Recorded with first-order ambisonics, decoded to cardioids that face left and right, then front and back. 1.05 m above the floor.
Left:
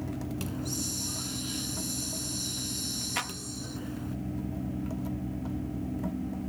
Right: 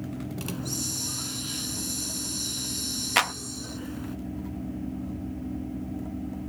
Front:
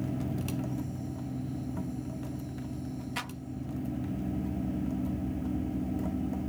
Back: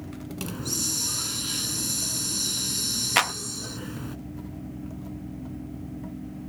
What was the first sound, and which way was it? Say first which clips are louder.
A hiss: right 4 dB, back 7 dB; 165° right.